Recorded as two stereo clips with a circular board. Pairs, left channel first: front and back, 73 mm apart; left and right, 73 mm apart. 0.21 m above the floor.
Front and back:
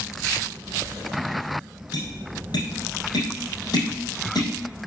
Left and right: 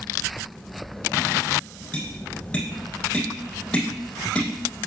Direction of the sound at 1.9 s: 15° left.